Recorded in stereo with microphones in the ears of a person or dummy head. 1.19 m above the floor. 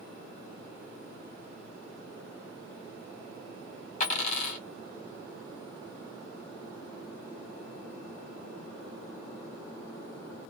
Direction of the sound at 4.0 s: 50° left (ahead or behind).